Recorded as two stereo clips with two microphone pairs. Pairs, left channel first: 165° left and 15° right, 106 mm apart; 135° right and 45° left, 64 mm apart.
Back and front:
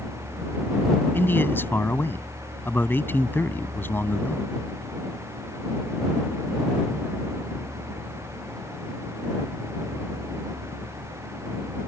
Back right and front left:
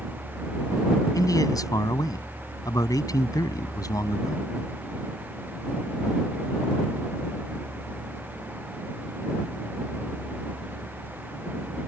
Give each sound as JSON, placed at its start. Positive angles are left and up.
{"t": 1.1, "sound": "a man speaking", "azimuth_deg": -125}